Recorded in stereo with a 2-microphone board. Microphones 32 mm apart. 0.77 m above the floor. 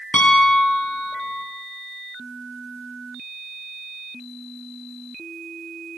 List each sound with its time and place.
0.1 s a piano: 50° left (ahead or behind), 5 m